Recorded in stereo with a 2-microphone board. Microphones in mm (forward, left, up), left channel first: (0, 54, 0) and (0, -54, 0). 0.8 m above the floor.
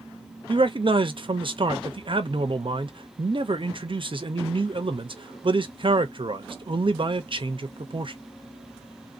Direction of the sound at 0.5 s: 50° right (ahead or behind).